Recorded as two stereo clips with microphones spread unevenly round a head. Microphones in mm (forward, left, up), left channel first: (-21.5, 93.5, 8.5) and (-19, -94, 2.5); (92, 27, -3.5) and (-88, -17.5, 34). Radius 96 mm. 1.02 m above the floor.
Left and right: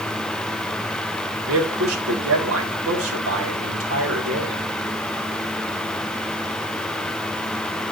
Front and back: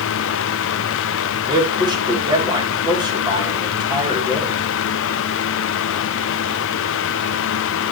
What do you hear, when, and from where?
1.5 s a man speaking: 95° right, 3 m